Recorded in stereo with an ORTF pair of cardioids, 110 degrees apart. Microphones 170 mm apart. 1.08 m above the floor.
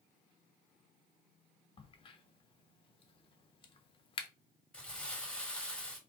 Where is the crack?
30° left, 0.9 m.